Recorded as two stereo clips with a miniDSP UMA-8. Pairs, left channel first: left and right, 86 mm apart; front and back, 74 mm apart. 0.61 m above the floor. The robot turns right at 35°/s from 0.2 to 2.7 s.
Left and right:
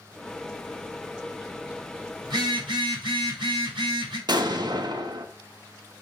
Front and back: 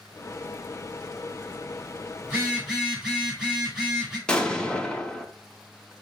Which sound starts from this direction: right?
An explosion, at 4.3 s.